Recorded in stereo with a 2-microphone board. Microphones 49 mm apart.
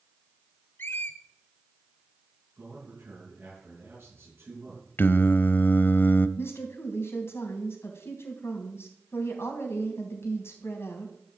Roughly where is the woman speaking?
Left.